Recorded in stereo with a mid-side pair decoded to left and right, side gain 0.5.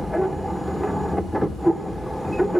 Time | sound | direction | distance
0.0 | a machine running | 5° left | 1.0 m